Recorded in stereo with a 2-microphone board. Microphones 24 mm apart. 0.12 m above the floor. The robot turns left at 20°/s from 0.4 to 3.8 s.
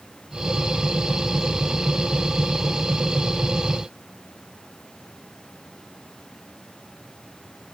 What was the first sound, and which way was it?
Only background noise.